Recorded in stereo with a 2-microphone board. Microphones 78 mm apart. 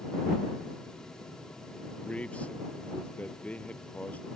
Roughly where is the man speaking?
Centre.